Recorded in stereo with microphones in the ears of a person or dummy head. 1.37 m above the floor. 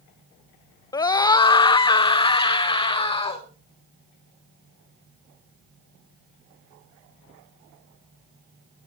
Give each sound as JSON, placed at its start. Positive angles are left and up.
{"t": 0.9, "sound": "a scream", "side_deg": 20, "distance_m": 0.6}